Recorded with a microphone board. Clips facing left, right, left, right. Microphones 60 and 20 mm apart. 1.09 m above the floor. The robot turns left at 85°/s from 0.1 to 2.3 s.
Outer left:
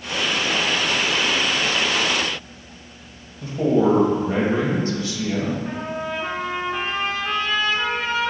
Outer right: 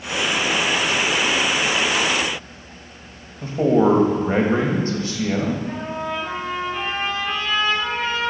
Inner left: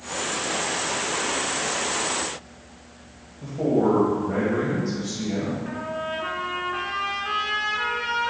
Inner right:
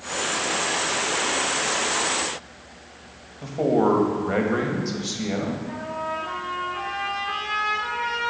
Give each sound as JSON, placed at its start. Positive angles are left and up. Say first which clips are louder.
{"t": 3.4, "sound": "a man speaking", "louder": "outer right 2 dB, inner right 1 dB", "side_deg": -40, "distance_m": 1.5}
{"t": 5.7, "sound": "a trumpet", "louder": "outer right 1 dB, even", "side_deg": 70, "distance_m": 3.0}